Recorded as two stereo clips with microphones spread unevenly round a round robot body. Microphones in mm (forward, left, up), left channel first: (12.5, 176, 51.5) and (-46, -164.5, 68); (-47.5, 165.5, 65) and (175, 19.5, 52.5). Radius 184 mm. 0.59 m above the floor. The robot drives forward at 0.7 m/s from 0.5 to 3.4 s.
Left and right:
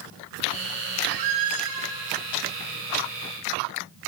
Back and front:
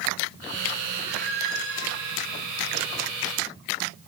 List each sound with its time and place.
1.0 s a squeak: 110° right, 0.5 m; by 1.9 s 150° right, 0.9 m